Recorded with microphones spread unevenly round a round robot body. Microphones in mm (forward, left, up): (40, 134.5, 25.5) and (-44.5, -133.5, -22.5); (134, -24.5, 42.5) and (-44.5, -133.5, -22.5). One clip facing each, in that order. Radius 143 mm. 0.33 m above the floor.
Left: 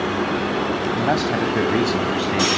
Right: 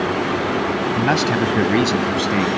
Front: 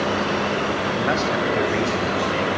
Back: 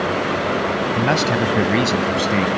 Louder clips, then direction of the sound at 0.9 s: Right 3 dB, back 4 dB; 160° right.